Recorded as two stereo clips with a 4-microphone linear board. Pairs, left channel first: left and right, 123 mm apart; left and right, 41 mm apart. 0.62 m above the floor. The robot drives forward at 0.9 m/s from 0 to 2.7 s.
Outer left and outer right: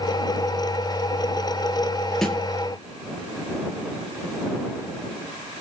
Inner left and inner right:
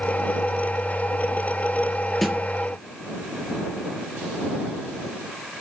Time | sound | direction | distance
2.2 | a snare drum | centre (ahead or behind) | 4 m